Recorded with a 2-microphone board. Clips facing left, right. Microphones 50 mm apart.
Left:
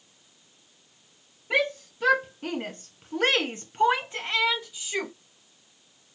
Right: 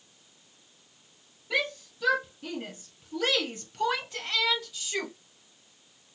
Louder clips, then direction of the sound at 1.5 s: Left 4 dB; 35° left (ahead or behind).